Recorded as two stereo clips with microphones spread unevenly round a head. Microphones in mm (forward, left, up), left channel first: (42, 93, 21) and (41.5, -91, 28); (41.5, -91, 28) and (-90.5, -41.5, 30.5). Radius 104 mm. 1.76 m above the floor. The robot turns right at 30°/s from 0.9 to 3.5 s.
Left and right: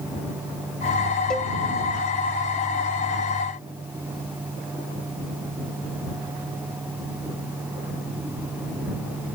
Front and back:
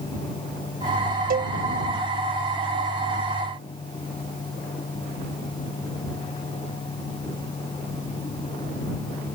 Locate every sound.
1.3 s a cowbell: 175° left; by 1.5 s 175° right